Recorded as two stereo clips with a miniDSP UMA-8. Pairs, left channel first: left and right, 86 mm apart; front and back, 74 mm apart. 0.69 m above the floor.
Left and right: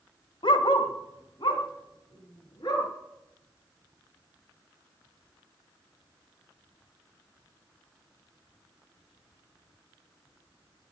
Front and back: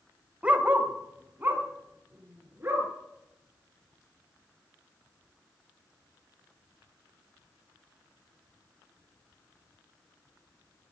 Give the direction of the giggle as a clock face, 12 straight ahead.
I don't hear a giggle.